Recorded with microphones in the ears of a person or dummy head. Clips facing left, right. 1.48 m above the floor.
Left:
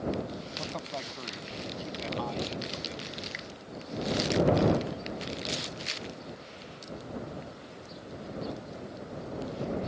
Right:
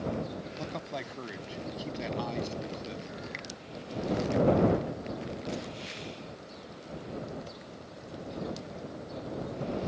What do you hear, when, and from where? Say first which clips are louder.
0.6 s a man speaking: even; 20° right (ahead or behind); by 3.1 s 25° right (ahead or behind)
3.3 s a finger snap: even; 10° left (ahead or behind)